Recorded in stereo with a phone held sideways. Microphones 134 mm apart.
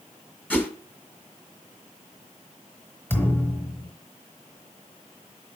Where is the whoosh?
10° left (ahead or behind), 1.2 m.